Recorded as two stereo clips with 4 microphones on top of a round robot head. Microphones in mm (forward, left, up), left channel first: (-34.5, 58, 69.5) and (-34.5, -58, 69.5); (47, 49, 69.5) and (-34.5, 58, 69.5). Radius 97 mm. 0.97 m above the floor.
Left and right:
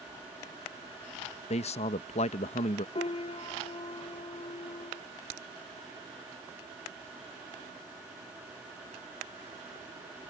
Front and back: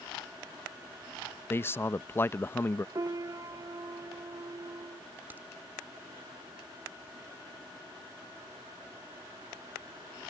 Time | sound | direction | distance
1.5 | a man speaking | 60° left | ?
3.0 | a piano | 125° left | ?
5.3 | a crack | 110° right | ?